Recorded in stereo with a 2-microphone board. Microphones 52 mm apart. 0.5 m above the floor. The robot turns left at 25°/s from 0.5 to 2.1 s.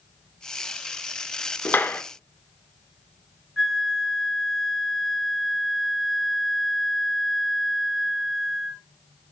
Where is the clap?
40° left (ahead or behind), 0.8 m; by 2.0 s 35° left (ahead or behind), 0.8 m.